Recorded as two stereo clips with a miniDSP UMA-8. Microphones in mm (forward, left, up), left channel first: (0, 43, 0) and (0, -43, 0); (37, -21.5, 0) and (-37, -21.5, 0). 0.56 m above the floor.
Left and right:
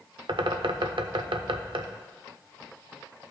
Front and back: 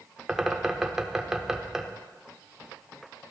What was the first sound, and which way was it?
A bird, 95° right.